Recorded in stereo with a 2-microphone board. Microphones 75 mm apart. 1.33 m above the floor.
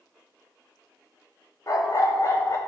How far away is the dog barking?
About 1.0 m.